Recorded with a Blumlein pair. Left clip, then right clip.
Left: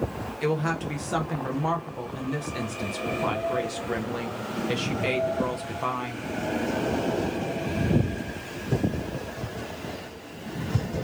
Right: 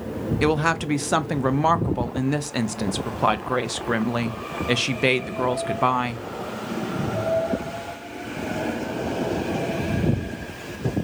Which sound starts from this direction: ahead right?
A woman speaking, at 0.4 s.